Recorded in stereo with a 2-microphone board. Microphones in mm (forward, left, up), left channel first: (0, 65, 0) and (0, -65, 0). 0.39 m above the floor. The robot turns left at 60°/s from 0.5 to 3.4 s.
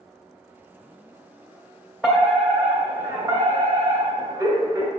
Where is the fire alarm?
Centre (ahead or behind), 2.0 m; by 4.9 s 20° right (ahead or behind), 2.0 m.